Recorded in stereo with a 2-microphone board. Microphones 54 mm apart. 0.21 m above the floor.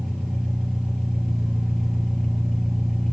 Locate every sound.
0.0 s an engine running: 10° left (ahead or behind), 3 m